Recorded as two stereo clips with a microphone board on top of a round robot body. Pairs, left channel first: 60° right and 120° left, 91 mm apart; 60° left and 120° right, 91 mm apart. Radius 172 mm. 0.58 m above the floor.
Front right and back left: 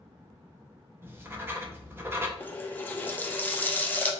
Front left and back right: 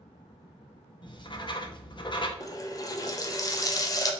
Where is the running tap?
10° left, 0.8 m.